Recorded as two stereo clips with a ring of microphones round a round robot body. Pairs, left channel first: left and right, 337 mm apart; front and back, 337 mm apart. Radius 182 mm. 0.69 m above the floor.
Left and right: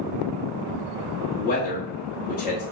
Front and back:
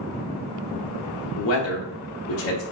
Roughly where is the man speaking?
Ahead left.